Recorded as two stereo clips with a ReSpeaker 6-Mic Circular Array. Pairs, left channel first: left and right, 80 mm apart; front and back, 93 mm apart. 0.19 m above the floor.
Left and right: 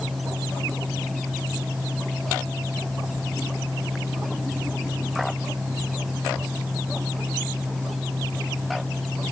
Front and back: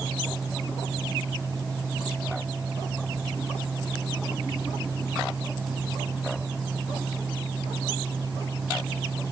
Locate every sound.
Only background noise.